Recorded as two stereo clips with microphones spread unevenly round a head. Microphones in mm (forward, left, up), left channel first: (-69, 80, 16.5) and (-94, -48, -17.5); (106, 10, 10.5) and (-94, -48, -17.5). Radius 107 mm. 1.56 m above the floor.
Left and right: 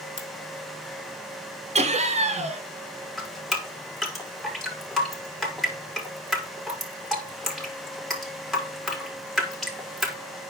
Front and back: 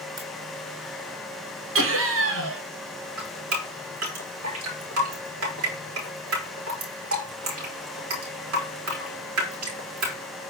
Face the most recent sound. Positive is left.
turn(degrees=165)